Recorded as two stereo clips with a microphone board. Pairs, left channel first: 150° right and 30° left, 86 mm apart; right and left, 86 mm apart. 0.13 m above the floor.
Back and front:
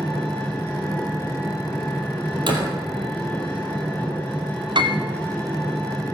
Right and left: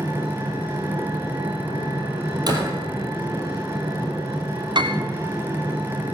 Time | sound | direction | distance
0.0 | an engine running | 145° left | 9 m
2.5 | a door slam | 55° left | 3 m
4.8 | a piano | 60° left | 0.9 m